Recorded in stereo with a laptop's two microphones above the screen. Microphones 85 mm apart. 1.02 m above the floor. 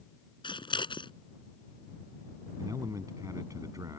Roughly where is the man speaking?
Right.